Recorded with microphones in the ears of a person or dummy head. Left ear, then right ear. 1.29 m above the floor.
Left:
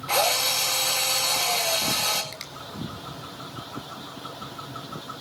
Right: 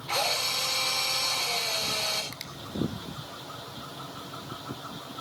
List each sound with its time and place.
0.1 s a drill: 20° left (ahead or behind), 4.5 m
2.3 s a finger snap: centre (ahead or behind), 1.5 m